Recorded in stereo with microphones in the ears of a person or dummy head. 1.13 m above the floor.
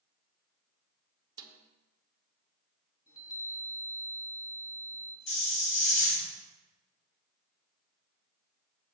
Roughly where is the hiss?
Left.